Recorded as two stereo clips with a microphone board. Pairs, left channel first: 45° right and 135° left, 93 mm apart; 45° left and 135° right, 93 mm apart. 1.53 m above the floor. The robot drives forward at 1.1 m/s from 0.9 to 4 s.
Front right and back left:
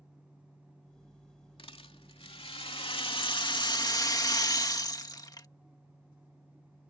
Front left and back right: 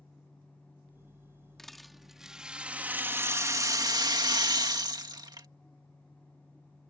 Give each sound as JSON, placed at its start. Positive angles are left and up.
{"t": 1.6, "sound": "a rattle", "azimuth_deg": -40}